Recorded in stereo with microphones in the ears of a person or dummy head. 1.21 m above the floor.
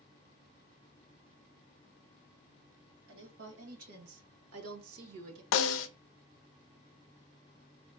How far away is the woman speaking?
About 2.5 m.